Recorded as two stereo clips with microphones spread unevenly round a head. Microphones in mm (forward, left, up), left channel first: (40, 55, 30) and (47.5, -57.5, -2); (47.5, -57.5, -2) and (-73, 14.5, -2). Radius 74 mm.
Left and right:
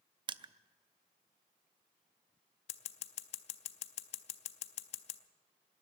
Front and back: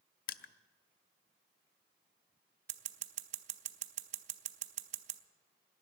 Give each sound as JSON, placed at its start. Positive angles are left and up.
{"t": 0.3, "sound": "crushing", "azimuth_deg": -35, "distance_m": 0.5}
{"t": 2.7, "sound": "scissors", "azimuth_deg": 110, "distance_m": 0.5}